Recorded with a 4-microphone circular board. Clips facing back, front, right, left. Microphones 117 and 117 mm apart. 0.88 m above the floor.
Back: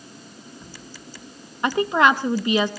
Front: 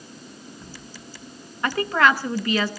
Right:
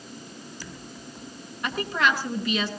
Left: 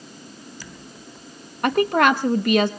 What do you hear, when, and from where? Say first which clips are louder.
1.6 s a woman speaking: back 2 dB, left 8 dB; 110° left, 1.0 m